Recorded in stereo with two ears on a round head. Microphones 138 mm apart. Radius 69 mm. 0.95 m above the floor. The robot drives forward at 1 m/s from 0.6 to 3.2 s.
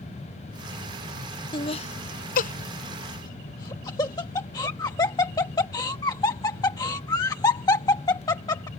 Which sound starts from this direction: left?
Laughter, at 1.5 s.